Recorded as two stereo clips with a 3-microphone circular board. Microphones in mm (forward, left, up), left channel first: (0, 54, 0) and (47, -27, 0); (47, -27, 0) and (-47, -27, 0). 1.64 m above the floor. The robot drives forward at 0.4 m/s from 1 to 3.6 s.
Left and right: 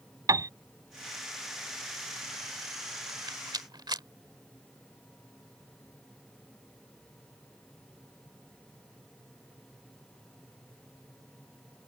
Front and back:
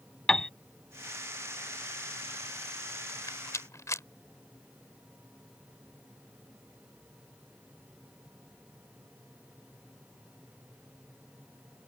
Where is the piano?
80° right.